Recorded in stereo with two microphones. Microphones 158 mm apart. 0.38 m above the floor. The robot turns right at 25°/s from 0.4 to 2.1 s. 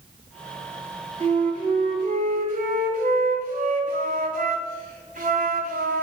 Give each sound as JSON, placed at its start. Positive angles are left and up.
{"t": 1.2, "sound": "a flute", "side_deg": -50, "distance_m": 1.5}